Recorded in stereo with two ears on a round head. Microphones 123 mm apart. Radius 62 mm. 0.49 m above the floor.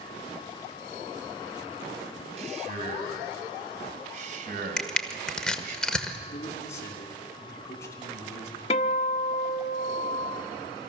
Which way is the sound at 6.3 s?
20° left (ahead or behind).